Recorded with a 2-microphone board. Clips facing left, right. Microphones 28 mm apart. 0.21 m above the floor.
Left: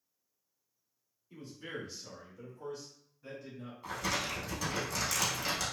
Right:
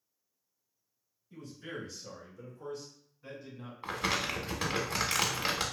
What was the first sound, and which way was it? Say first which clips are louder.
A man speaking: even; 45° left (ahead or behind).